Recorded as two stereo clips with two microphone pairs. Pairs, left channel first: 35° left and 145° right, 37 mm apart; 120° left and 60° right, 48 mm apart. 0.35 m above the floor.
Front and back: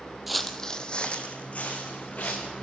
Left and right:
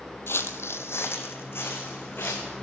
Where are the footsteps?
130° left, 0.5 m; by 2.5 s 80° left, 1.9 m.